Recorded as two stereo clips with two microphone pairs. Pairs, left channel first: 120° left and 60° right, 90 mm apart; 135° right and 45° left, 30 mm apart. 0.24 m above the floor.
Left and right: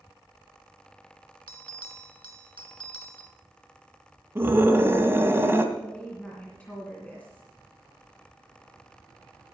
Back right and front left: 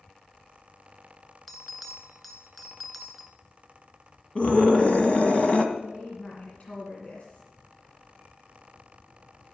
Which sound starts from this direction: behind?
A woman speaking, at 5.8 s.